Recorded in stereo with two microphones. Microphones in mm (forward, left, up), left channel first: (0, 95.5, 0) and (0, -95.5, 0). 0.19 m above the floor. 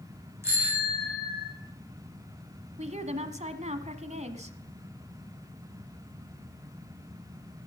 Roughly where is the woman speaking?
Right.